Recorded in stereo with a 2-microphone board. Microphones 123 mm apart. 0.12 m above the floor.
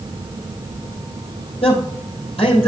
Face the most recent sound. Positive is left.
turn(degrees=55)  # may be behind; listen again after turning